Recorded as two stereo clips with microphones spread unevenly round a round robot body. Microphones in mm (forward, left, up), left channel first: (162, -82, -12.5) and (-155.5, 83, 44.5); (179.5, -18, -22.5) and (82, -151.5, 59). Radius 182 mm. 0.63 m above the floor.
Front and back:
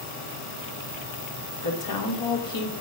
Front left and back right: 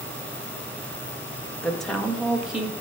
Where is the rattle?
I don't hear a rattle.